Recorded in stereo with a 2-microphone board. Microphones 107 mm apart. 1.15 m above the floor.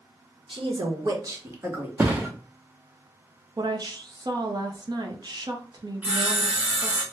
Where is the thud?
20° right (ahead or behind), 0.7 m.